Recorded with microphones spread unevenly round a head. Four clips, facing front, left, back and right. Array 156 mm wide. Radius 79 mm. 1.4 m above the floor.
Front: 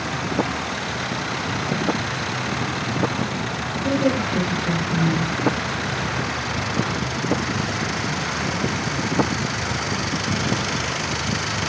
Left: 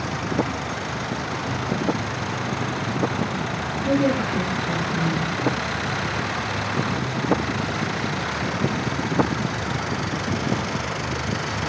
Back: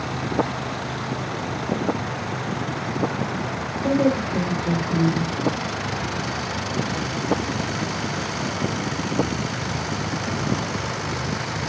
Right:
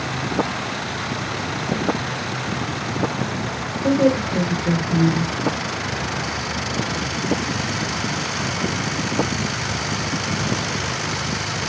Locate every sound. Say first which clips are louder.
3.8 s a woman speaking: right 4 dB, back 1 dB; 110° right, 5.5 m